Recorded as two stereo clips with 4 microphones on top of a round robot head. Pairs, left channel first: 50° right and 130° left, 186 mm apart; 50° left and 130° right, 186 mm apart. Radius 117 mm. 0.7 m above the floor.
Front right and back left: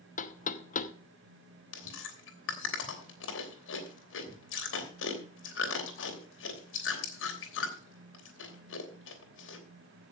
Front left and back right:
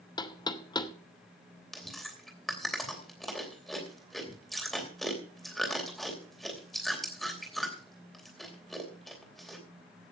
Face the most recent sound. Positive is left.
turn(degrees=-40)